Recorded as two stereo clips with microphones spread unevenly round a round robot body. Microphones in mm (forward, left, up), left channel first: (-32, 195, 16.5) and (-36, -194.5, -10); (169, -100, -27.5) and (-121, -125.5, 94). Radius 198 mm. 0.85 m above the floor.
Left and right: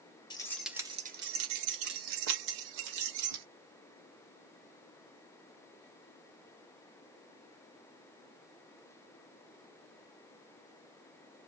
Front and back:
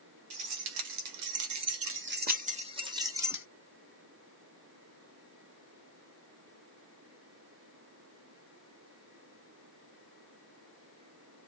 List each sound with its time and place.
0.3 s keys jangling: 170° left, 0.8 m; by 3.5 s 90° right, 1.4 m